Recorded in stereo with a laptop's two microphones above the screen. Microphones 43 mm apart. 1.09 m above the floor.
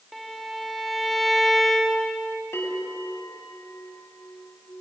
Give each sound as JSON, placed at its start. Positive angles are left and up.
{"t": 0.1, "sound": "a violin", "side_deg": 0, "distance_m": 1.4}
{"t": 2.5, "sound": "a bell", "side_deg": 75, "distance_m": 5.0}